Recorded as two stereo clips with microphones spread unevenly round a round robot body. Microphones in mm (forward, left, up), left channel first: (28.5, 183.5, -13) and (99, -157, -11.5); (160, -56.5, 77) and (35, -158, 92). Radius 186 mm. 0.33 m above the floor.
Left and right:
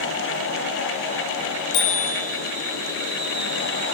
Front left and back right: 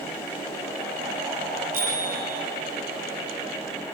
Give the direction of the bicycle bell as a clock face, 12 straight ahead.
7 o'clock.